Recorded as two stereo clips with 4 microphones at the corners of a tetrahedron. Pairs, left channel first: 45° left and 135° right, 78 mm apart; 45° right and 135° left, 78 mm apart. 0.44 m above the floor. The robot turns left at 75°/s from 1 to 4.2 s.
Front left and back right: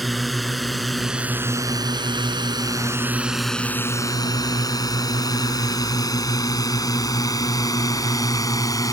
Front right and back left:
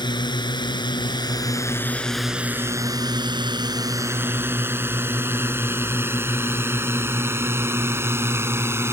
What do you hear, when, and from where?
0.0 s a drone: 45° right; by 8.9 s 80° left